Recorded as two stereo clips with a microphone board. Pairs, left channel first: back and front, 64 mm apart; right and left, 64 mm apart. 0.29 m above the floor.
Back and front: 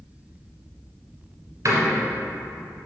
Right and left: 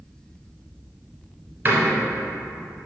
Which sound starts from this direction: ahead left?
A door slam, at 1.6 s.